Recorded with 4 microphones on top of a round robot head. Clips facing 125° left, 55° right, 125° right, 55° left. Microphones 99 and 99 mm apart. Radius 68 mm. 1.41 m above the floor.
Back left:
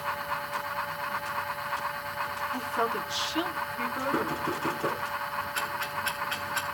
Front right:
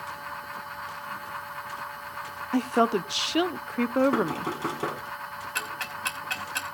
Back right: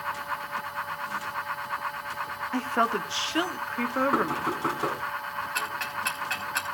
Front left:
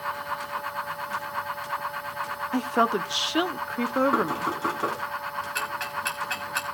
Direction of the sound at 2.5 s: 20° right.